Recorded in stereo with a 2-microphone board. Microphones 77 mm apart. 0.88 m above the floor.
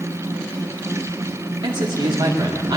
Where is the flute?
I don't hear a flute.